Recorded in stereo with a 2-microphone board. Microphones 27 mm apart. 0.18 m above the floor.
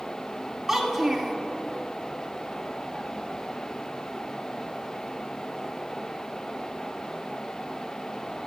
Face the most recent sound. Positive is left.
turn(degrees=-20)  # may be behind; listen again after turning